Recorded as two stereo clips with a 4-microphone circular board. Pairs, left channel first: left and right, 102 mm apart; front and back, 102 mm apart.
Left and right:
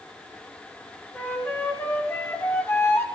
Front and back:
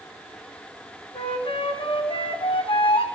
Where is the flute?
25° left, 2 m.